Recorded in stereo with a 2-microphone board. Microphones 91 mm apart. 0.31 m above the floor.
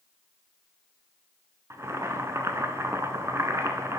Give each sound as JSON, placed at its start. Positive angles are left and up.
{"t": 1.7, "sound": "boiling", "side_deg": -35, "distance_m": 0.7}